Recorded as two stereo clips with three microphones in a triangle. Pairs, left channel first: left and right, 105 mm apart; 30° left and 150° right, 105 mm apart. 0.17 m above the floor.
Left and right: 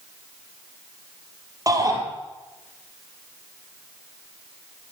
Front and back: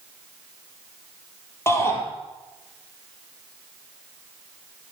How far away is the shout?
About 4.5 m.